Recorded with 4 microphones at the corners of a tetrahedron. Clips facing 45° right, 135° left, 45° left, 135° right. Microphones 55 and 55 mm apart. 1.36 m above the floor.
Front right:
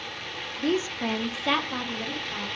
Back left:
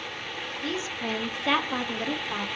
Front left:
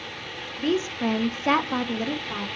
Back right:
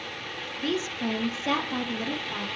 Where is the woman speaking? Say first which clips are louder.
Front right 7 dB, front left 5 dB; 10° right, 0.6 m; by 2.5 s 105° left, 0.7 m.